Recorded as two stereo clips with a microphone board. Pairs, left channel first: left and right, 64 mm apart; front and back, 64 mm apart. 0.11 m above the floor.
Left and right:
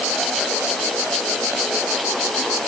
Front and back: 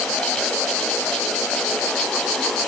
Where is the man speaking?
I don't hear a man speaking.